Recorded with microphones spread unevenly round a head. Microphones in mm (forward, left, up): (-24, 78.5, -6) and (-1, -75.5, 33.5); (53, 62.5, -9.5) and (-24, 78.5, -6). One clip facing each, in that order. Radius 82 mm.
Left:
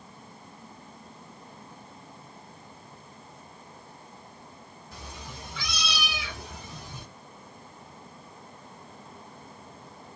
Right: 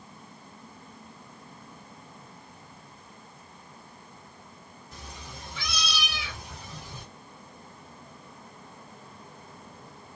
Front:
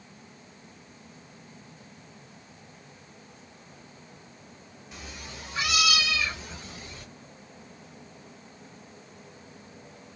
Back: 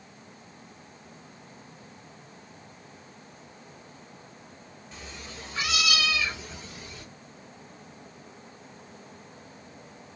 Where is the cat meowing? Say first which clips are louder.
Left 2 dB, even; 70° left, 1.7 m; by 7.0 s 55° left, 4.5 m.